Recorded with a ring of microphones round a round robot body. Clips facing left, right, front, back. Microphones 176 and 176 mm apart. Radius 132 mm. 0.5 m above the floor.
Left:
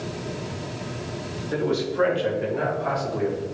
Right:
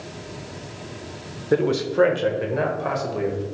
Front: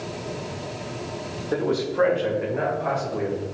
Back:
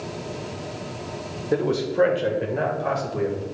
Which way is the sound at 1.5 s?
110° right.